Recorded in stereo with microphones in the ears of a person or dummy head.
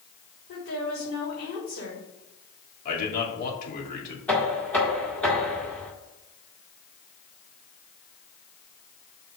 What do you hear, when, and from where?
0.5 s a woman speaking: 55° left (ahead or behind), 3.5 m
2.9 s a man speaking: 50° left (ahead or behind), 2.5 m
4.3 s knocking: 10° left (ahead or behind), 1.8 m